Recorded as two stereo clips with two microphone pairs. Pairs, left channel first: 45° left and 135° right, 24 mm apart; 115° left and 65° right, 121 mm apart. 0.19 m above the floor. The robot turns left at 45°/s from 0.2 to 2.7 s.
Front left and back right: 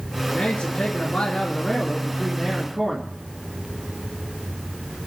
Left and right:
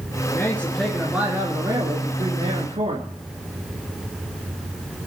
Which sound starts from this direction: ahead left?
A man speaking, at 0.3 s.